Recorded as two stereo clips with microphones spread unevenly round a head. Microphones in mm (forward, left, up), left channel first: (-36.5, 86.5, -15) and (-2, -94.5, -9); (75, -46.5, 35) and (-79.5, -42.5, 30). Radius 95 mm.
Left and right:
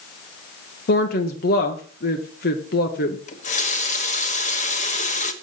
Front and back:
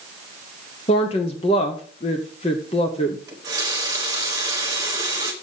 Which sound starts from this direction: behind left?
A running tap, at 3.3 s.